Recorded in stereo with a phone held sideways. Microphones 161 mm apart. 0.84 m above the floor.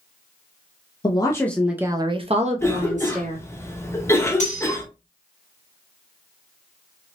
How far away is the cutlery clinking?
About 1.0 m.